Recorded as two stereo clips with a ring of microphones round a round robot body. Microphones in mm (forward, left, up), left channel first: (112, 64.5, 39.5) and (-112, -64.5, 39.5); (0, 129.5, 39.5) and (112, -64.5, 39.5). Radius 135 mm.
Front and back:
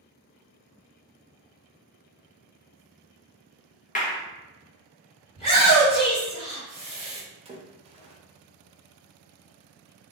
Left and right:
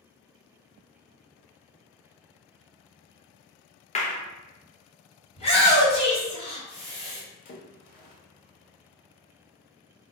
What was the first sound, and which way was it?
A clap, 75° left.